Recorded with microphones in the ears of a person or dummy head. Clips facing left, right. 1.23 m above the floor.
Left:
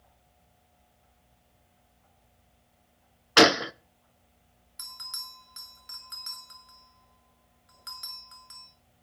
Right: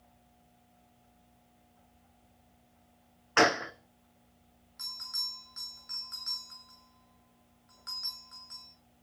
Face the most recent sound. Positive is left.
turn(degrees=45)  # may be behind; listen again after turning